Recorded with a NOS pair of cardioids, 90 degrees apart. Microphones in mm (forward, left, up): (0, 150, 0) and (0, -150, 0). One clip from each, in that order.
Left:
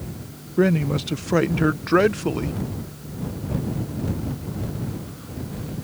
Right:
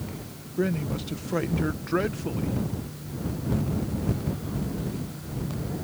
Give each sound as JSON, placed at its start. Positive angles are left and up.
{"t": 0.6, "sound": "a man speaking", "azimuth_deg": 45}